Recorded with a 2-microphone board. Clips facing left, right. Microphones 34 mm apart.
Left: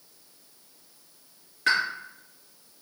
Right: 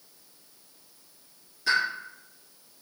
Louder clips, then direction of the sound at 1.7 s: Left 1 dB; 60° left (ahead or behind).